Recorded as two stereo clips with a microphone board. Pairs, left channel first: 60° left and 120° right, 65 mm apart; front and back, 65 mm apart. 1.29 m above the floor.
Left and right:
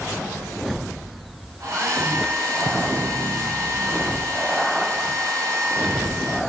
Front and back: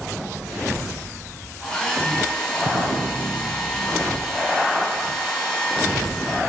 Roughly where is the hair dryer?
Right.